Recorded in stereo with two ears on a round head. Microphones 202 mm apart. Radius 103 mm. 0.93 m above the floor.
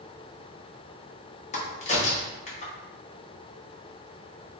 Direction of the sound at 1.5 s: 30° left (ahead or behind).